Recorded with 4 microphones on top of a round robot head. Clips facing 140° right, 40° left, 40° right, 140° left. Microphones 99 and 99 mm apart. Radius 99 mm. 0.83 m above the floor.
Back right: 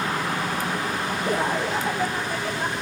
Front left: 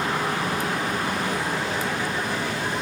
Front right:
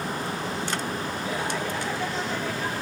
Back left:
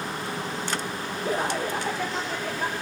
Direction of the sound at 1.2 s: 170° right.